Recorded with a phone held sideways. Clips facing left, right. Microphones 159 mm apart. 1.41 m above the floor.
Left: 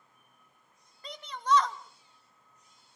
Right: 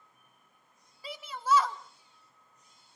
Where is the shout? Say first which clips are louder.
Even; 5° right (ahead or behind), 1.3 m.